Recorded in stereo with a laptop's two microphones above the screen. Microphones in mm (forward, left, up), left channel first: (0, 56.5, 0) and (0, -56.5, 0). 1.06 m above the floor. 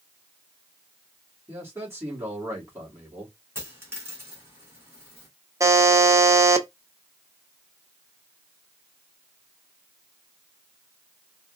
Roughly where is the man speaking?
Right.